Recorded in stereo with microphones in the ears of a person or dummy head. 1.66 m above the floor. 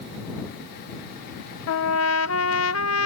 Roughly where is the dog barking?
I don't hear a dog barking.